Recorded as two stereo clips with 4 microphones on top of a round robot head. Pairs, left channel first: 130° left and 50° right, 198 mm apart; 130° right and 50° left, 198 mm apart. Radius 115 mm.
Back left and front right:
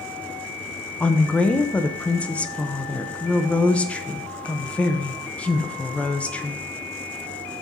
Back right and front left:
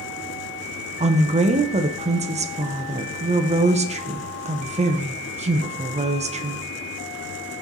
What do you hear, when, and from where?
1.0 s a woman speaking: 55° left, 0.6 m